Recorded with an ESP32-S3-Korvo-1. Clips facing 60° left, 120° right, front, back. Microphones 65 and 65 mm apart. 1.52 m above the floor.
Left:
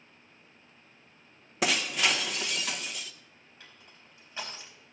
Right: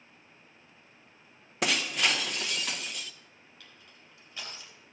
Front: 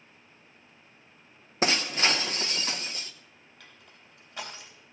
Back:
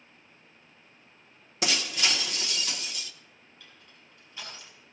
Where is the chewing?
No chewing in this recording.